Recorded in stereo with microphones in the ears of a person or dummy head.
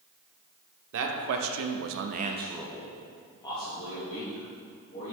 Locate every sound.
0.9 s a man speaking: 75° right (ahead or behind), 1.0 m; by 5.1 s 35° left (ahead or behind), 2 m